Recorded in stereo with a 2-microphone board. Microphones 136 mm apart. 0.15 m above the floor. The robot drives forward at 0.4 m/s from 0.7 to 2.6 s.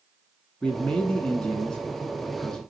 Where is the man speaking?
5° left (ahead or behind), 1.4 m.